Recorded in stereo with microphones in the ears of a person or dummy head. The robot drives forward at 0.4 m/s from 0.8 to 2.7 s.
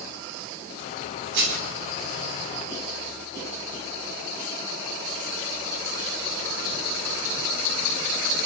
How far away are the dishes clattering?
About 9.5 m.